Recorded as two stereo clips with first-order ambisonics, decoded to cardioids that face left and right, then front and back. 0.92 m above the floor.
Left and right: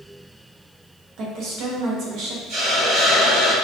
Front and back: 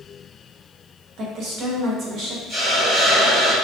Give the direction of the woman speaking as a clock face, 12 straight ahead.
4 o'clock.